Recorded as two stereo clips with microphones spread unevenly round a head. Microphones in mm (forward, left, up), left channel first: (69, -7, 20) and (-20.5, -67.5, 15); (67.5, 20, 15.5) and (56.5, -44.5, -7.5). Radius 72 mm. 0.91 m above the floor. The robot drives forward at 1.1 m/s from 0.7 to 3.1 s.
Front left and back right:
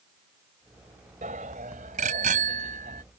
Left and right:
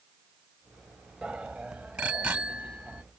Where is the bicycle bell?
175° left.